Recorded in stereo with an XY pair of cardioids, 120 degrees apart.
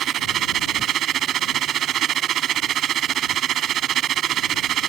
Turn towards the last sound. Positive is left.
turn(degrees=-60)